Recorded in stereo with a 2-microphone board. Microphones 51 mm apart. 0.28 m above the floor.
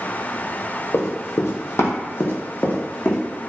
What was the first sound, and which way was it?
Running footsteps, 55° left (ahead or behind).